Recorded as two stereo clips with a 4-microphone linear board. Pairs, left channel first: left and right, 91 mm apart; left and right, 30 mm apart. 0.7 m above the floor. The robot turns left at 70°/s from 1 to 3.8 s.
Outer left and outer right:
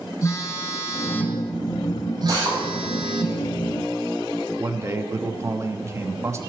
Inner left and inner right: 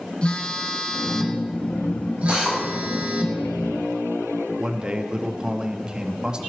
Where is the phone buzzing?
35° left, 1.8 m; by 3.3 s 125° right, 1.8 m.